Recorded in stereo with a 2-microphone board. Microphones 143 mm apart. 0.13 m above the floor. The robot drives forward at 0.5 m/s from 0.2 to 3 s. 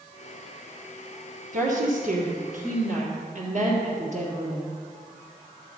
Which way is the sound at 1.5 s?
60° right (ahead or behind).